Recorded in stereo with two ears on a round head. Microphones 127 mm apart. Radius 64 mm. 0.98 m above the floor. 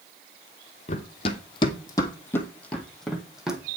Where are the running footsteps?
45° left (ahead or behind), 1.4 m; by 3.6 s 5° right (ahead or behind), 1.8 m.